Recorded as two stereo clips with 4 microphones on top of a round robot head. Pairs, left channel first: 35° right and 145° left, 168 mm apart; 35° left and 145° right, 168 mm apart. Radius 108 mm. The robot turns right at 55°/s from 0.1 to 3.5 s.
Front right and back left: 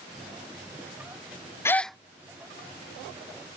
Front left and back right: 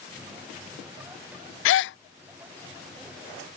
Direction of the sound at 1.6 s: 40° left.